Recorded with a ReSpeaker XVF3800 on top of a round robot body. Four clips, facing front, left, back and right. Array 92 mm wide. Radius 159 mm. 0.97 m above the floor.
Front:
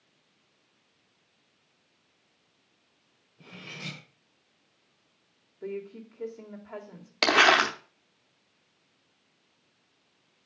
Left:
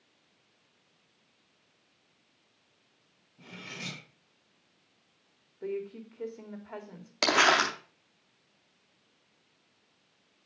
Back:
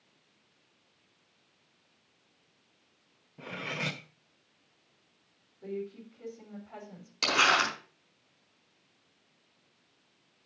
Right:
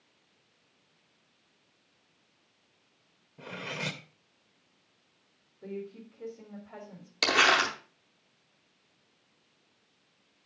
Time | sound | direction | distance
3.4 | cutlery clinking | 145° right | 0.8 m
5.6 | a woman speaking | 55° left | 3 m
7.2 | crumpling | 25° left | 0.6 m